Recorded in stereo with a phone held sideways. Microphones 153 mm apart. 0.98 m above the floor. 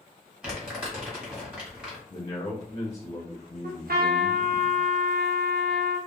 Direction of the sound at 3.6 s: 80° right.